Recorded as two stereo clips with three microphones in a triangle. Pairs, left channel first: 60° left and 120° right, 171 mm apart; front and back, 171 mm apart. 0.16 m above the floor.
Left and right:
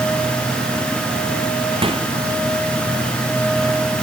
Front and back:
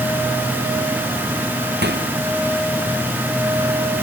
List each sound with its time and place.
1.8 s a microwave: straight behind